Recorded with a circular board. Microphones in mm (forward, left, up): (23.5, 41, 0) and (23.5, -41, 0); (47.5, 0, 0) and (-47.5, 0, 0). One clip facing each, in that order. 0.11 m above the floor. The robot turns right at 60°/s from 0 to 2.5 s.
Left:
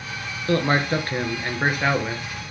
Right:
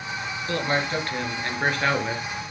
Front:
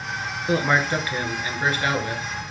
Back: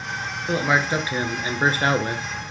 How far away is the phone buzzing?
No phone buzzing in this recording.